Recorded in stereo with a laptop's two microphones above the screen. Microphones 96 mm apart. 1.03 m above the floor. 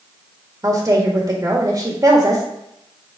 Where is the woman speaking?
35° right (ahead or behind), 1.7 m.